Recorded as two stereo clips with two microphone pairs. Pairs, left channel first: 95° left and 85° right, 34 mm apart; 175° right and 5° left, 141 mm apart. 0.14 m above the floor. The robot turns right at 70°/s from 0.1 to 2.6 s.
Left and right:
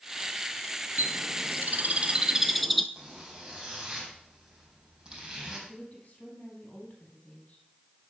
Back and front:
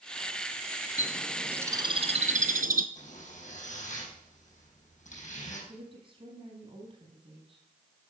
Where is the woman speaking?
55° left, 4 m.